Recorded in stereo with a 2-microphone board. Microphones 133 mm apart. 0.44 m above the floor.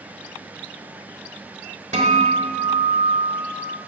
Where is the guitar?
55° right (ahead or behind), 1.6 m.